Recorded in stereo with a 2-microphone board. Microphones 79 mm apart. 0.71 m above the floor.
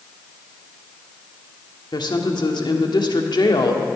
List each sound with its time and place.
1.9 s a woman speaking: 65° left (ahead or behind), 1.5 m